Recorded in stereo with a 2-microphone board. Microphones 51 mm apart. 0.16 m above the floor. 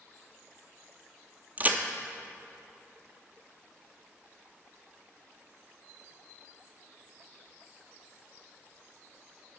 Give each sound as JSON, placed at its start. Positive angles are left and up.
{"t": 1.6, "sound": "a crack", "side_deg": -35, "distance_m": 0.6}